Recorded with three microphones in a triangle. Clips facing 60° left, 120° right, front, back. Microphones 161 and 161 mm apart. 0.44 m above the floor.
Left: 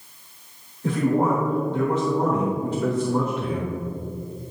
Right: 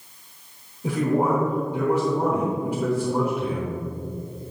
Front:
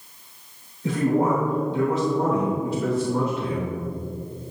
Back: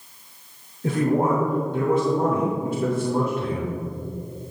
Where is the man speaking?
165° left, 1.1 m.